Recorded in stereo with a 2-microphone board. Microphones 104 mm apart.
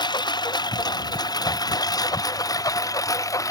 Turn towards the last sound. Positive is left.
turn(degrees=30)  # may be behind; listen again after turning